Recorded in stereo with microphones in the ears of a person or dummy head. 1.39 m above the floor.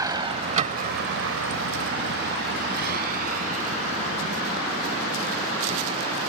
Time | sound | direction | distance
0.0 | a vehicle | 20° right (ahead or behind) | ?